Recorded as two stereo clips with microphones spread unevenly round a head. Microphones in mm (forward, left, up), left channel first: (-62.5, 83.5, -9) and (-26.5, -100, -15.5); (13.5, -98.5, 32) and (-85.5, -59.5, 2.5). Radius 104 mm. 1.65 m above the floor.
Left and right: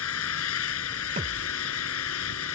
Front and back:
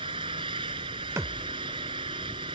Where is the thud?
130° right.